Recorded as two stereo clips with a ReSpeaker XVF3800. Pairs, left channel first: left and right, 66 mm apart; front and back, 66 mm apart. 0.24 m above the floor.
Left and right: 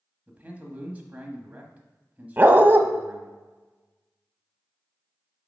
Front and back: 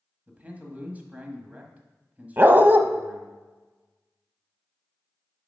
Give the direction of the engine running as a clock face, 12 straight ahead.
I don't hear an engine running.